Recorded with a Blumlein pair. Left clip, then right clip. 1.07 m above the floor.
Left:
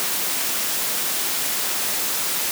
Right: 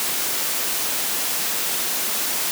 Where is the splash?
No splash in this recording.